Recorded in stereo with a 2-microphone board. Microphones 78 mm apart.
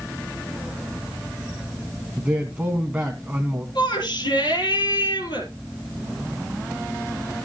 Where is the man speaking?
15° right (ahead or behind), 1.4 m.